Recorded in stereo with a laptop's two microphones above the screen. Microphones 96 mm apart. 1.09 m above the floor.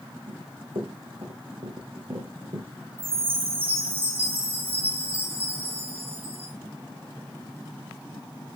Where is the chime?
80° right, 5 m.